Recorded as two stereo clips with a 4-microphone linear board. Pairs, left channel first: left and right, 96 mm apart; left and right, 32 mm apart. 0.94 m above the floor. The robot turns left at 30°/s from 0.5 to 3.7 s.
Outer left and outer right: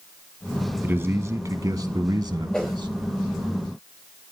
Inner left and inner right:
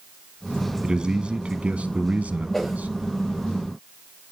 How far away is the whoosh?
About 5 m.